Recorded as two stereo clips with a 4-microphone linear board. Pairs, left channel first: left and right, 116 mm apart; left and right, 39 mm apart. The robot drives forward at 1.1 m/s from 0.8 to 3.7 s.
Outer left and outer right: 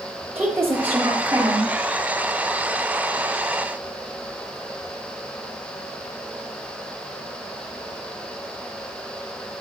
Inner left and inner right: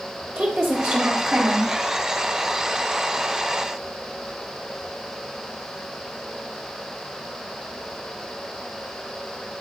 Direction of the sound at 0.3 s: 15° right (ahead or behind).